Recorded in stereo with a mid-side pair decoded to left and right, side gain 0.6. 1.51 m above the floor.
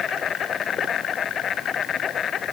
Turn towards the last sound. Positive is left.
turn(degrees=40)